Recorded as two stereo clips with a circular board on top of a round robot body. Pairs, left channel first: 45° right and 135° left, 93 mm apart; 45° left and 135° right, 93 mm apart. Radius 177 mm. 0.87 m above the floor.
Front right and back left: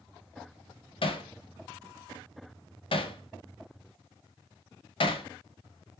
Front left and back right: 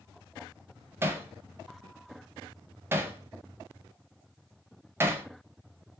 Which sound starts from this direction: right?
Hammering, at 1.0 s.